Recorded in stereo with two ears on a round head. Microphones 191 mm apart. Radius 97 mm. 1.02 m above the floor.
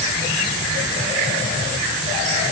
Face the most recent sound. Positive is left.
No sound to turn to.